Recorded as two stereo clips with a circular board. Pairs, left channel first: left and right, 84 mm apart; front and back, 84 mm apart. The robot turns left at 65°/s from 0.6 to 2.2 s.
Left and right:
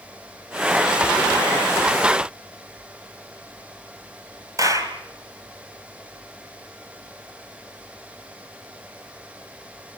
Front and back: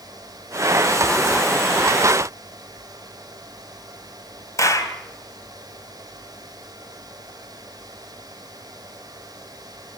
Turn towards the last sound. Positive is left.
turn(degrees=-45)